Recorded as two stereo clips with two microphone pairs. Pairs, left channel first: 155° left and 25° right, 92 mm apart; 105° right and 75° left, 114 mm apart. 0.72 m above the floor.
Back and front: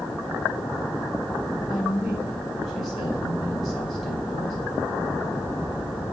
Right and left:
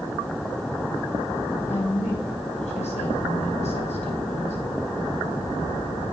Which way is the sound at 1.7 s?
115° right.